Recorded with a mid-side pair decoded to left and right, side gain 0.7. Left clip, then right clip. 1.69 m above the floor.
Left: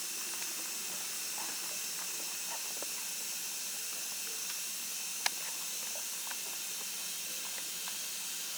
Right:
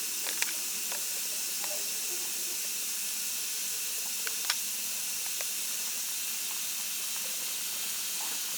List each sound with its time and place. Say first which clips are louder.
0.0 s running water: right 6 dB; 65° right, 0.7 m